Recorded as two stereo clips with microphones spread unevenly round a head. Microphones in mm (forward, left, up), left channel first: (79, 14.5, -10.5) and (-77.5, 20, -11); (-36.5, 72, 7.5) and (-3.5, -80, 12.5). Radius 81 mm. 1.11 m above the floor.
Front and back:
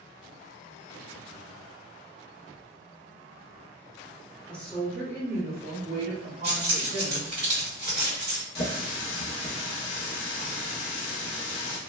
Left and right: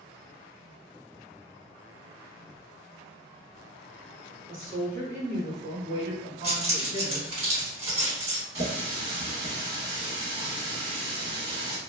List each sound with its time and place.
4.5 s a woman speaking: 80° right, 0.9 m; by 7.3 s 135° right, 1.9 m
6.4 s keys jangling: 125° right, 1.9 m
8.6 s a running tap: 25° right, 1.0 m